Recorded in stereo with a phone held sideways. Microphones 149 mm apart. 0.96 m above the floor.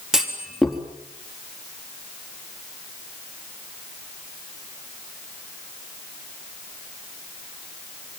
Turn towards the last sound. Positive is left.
turn(degrees=-5)  # may be behind; listen again after turning